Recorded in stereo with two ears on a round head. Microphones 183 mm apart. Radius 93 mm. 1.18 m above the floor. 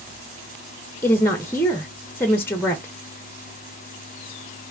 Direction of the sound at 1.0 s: 10° left (ahead or behind).